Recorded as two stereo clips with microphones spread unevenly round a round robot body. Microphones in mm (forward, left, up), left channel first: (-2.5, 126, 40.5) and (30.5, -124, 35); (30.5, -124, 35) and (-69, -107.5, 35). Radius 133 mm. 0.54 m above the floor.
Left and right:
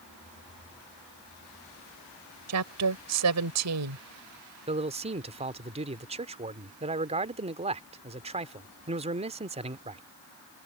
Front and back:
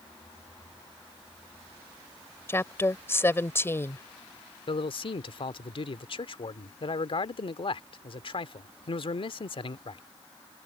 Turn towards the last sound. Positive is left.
turn(degrees=-20)